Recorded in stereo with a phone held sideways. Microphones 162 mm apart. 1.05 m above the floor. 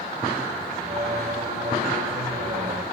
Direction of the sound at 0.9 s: 50° right (ahead or behind).